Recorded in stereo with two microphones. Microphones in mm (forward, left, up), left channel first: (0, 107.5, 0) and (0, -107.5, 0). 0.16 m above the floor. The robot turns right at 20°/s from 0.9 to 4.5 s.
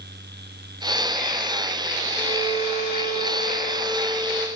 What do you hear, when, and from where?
2.1 s a violin: 160° right, 0.8 m; by 4.5 s 110° right, 0.8 m